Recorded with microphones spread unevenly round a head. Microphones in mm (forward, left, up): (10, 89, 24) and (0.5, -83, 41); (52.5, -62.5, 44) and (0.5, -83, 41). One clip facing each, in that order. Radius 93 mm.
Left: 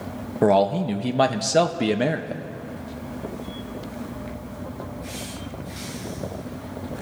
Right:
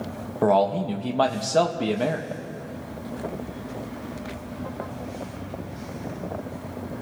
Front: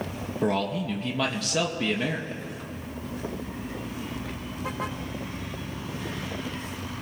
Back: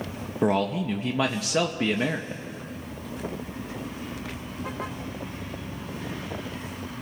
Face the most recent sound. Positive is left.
turn(degrees=155)